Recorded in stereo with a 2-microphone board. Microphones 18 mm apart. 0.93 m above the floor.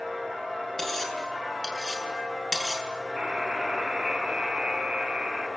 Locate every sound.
0.8 s cutlery clinking: 15° left (ahead or behind), 6.5 m
3.2 s a buzzer: 40° right (ahead or behind), 6 m